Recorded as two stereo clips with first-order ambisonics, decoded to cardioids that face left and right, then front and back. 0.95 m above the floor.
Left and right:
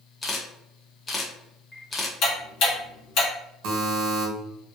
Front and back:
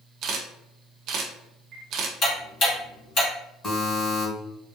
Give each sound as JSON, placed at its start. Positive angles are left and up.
{"t": 0.2, "sound": "a camera shutter", "azimuth_deg": 160, "distance_m": 0.6}
{"t": 2.2, "sound": "ticking", "azimuth_deg": 55, "distance_m": 1.7}
{"t": 3.6, "sound": "a buzzer", "azimuth_deg": -75, "distance_m": 1.3}